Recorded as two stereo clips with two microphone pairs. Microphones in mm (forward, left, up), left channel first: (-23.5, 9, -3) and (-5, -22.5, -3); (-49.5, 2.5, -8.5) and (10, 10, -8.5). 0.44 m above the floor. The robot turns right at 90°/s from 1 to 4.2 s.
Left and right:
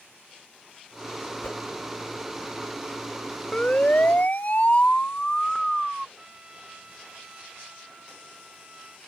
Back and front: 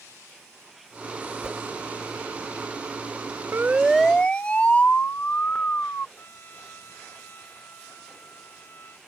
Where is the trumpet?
120° right.